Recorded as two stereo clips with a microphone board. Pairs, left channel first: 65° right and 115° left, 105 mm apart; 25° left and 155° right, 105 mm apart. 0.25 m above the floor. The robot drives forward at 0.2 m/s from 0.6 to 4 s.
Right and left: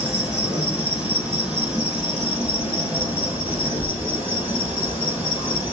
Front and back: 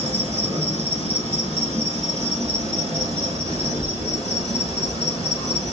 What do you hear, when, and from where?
0.0 s an insect: 165° right, 2.5 m; by 5.7 s 170° right, 3 m